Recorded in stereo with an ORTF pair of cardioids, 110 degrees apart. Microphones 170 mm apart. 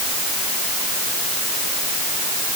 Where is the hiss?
No hiss in this recording.